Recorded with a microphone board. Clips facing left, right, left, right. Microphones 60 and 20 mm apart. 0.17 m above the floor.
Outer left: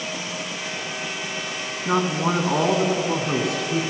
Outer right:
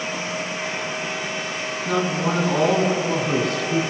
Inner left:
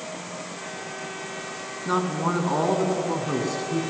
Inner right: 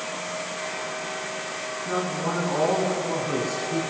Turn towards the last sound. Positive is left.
turn(degrees=0)  # may be behind; listen again after turning